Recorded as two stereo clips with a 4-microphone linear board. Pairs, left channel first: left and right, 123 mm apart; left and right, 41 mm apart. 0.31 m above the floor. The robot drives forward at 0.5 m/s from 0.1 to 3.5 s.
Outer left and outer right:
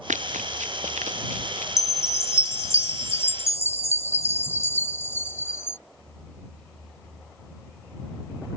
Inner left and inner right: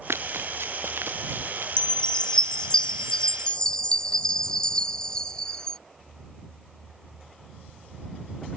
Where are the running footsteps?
80° right; by 1.7 s 75° right (ahead or behind).